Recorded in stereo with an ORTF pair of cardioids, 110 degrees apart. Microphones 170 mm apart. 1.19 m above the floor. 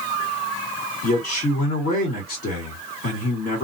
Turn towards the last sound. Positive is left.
turn(degrees=65)